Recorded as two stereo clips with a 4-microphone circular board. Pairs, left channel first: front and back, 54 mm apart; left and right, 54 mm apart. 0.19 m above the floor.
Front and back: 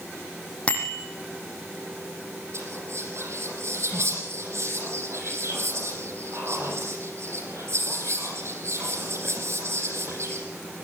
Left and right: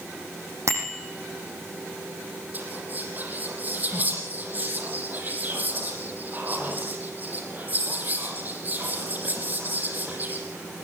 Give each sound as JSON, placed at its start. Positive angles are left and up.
{"t": 0.7, "sound": "a bicycle bell", "azimuth_deg": -65, "distance_m": 6.0}
{"t": 2.5, "sound": "whispering", "azimuth_deg": -145, "distance_m": 6.0}